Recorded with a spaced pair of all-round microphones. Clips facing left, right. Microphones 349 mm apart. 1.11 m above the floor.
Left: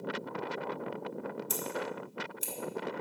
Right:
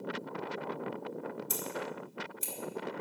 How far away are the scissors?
About 1.6 m.